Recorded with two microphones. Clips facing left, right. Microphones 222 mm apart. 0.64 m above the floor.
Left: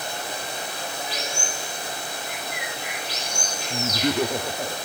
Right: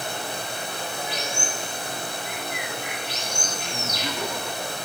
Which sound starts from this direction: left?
Laughter, at 3.7 s.